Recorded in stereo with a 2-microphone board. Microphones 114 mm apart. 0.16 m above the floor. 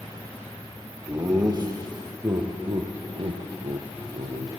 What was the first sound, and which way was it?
Laughter, 30° right (ahead or behind).